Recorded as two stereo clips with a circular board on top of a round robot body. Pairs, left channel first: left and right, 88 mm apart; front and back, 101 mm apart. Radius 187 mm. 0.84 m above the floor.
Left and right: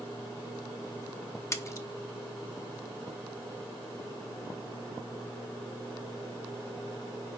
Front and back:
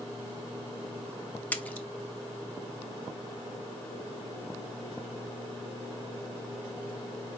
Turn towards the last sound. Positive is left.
turn(degrees=65)